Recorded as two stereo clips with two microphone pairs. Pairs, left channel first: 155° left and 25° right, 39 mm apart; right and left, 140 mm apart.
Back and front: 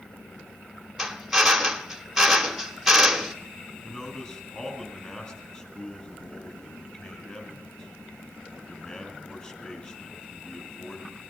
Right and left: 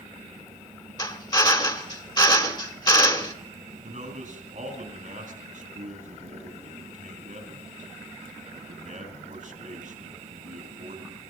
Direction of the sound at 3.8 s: 90° left.